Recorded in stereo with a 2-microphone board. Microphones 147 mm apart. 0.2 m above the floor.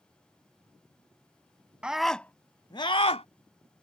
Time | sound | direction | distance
1.8 | a scream | 5° right (ahead or behind) | ?